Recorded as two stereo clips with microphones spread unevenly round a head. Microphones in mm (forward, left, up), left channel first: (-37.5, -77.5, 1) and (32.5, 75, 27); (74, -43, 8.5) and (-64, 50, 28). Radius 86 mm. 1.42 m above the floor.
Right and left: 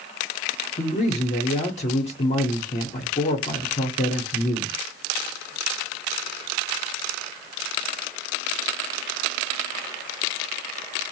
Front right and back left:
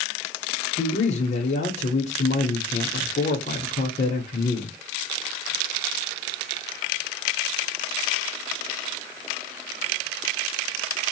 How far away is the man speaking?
About 0.7 m.